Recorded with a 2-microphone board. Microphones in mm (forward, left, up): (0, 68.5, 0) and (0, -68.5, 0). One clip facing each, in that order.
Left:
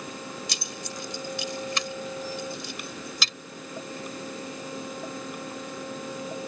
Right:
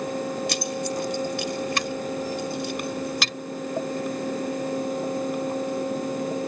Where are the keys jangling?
60° right (ahead or behind).